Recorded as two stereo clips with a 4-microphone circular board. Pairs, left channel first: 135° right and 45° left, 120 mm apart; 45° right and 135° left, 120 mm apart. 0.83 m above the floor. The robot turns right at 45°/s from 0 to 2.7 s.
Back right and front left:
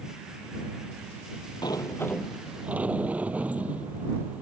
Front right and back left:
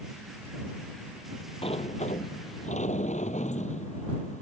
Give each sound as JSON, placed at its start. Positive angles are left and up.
{"t": 1.6, "sound": "a sliding door", "azimuth_deg": -80}